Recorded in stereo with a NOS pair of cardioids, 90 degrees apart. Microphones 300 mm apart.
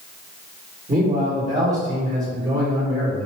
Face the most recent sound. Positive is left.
turn(degrees=-25)